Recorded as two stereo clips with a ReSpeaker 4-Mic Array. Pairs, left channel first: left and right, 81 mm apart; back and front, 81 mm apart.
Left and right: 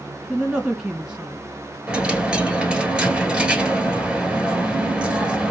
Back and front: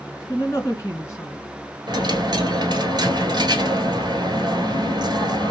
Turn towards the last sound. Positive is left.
turn(degrees=-15)